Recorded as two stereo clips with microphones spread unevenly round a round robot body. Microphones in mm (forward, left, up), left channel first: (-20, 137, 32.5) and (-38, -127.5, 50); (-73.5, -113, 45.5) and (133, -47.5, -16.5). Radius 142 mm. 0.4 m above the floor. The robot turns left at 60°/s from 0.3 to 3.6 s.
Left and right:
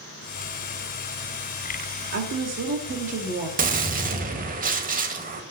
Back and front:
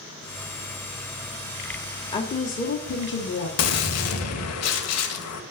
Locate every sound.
2.1 s a woman speaking: 85° right, 1.7 m; by 3.5 s 165° right, 1.7 m
3.6 s a gunshot: 155° right, 1.6 m